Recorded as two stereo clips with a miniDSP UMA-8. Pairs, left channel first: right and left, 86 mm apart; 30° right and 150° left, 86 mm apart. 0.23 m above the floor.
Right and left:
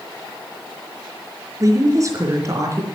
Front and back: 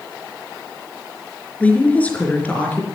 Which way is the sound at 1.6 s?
40° left.